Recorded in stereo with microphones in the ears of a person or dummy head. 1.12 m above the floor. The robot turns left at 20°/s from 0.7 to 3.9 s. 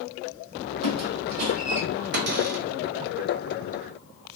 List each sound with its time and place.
0.8 s a squeak: 35° right (ahead or behind), 1.2 m; by 1.8 s 45° right (ahead or behind), 1.2 m
2.1 s a cupboard door: 50° right (ahead or behind), 0.5 m; by 2.6 s 40° right (ahead or behind), 0.5 m